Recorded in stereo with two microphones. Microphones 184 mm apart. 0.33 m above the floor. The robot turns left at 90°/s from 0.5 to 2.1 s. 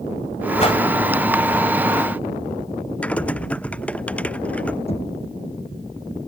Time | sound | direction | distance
0.6 | a whoosh | 35° left (ahead or behind) | ?
3.0 | typing on a keyboard | 5° left (ahead or behind) | ?
4.9 | knocking | 35° left (ahead or behind) | ?